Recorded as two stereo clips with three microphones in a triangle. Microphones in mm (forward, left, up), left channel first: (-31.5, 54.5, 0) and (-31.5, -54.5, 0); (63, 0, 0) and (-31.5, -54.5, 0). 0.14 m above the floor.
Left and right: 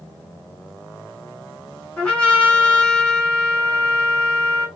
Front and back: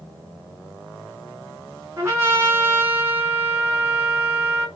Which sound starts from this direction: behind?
A trumpet, at 2.0 s.